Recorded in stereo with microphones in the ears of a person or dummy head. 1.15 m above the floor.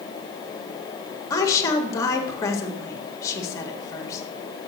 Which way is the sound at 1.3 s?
20° left (ahead or behind).